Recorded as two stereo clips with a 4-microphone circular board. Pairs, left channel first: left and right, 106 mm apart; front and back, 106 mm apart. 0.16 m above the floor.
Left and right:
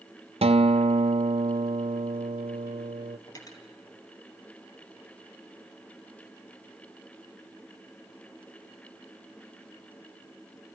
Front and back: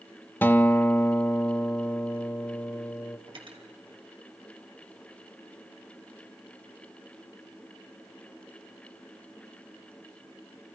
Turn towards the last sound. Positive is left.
turn(degrees=145)